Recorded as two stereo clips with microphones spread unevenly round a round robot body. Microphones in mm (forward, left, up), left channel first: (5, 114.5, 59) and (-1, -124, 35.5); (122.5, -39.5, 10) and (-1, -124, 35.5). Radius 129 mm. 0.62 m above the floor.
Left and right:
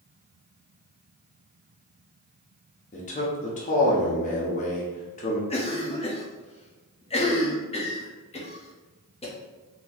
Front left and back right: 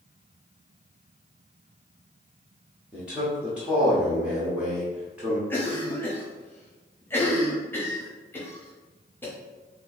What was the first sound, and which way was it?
A man speaking, 120° left.